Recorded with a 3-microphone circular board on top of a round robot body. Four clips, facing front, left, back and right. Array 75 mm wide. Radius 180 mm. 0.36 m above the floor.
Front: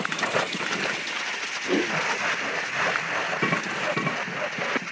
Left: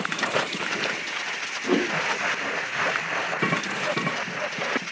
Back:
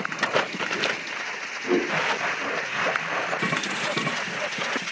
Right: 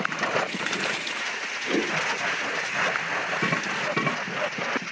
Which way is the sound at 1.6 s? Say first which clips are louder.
Left 3 dB, back 2 dB; 110° left.